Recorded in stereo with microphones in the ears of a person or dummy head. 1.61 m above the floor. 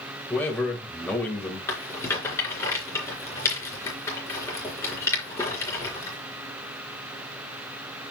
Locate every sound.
0.3 s a man speaking: 10° left (ahead or behind), 2.5 m
1.7 s a rattle: 15° left (ahead or behind), 4 m